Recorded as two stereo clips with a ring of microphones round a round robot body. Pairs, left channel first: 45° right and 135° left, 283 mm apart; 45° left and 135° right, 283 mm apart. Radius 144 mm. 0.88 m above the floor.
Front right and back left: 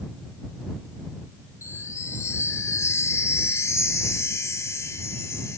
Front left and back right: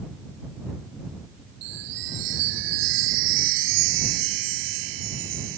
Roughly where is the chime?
Behind right.